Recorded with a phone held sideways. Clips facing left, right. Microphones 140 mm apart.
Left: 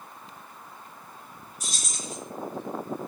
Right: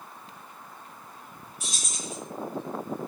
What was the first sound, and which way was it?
Keys jangling, 40° left (ahead or behind).